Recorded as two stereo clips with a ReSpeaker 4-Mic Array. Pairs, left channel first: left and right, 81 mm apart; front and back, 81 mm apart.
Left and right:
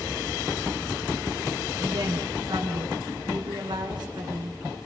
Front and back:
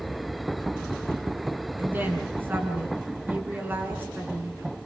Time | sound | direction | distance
1.8 | a woman speaking | 115° right | 7 m